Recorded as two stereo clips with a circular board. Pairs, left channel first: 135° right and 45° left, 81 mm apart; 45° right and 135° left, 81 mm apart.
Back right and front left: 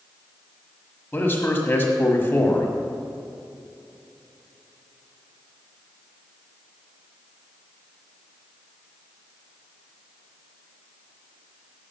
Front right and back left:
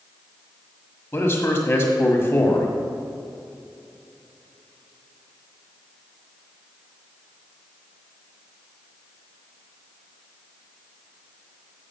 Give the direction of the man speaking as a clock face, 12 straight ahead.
3 o'clock.